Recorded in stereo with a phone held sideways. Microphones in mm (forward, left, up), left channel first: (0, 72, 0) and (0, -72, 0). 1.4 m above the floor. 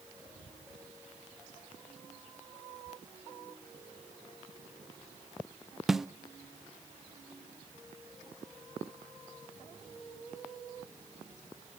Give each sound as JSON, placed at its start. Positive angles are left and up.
{"t": 5.9, "sound": "a snare drum", "side_deg": 0, "distance_m": 0.5}